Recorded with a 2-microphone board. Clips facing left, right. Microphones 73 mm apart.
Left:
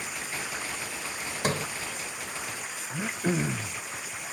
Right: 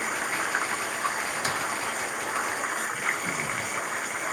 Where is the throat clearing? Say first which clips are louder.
Even; 60° left (ahead or behind).